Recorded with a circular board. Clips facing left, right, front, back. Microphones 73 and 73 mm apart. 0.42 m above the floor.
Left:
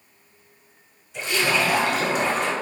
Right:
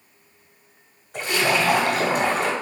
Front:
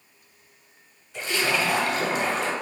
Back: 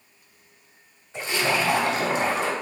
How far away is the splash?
About 1.5 m.